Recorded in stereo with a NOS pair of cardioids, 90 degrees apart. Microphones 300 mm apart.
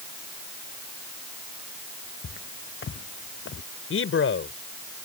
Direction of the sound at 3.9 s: 45° left.